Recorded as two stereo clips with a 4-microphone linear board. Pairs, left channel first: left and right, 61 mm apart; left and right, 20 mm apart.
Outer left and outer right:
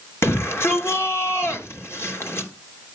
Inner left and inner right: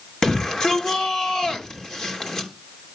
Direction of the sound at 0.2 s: 45° left (ahead or behind).